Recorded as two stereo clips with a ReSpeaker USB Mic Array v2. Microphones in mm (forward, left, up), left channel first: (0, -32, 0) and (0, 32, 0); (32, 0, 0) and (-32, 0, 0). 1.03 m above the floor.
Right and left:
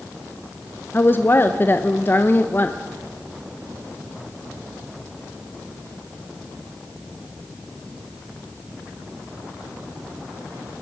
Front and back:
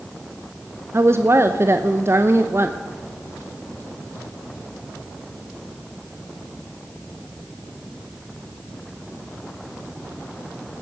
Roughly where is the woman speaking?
Behind right.